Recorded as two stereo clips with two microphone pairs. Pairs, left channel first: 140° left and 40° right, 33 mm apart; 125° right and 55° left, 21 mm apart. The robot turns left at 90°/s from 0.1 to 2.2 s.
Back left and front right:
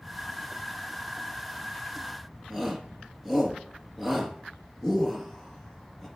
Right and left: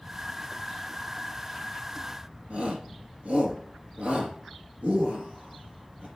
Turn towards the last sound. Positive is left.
turn(degrees=45)